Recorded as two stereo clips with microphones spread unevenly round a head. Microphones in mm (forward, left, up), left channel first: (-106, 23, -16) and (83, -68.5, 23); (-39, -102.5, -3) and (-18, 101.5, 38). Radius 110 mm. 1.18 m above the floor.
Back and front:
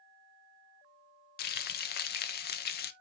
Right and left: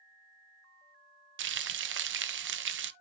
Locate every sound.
1.4 s frying: 115° left, 1.0 m